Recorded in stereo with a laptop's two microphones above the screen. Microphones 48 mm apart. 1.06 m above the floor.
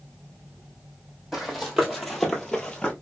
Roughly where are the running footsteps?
Centre.